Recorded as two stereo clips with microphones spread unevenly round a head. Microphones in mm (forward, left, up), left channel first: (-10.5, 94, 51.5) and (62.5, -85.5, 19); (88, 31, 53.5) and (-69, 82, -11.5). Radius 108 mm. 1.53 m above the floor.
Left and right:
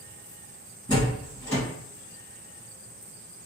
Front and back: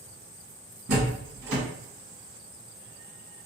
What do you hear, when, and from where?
0.9 s a door slam: 175° right, 1.5 m